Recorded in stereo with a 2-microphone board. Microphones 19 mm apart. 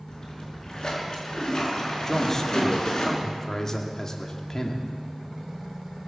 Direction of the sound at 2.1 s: 30° left (ahead or behind).